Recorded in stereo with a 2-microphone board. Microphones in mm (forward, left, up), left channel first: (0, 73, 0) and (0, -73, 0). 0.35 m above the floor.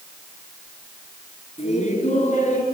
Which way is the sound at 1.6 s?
55° left (ahead or behind).